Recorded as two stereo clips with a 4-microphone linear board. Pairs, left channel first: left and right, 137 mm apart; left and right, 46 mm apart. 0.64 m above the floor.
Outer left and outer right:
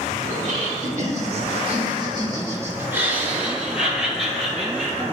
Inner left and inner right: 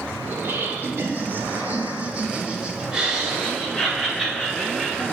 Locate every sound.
0.3 s laughter: 70° right (ahead or behind), 1.8 m; by 5.0 s 5° left (ahead or behind), 3 m